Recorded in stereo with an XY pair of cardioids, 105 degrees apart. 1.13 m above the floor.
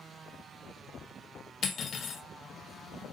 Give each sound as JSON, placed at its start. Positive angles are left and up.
{"t": 1.6, "sound": "cutlery clinking", "azimuth_deg": 55, "distance_m": 0.7}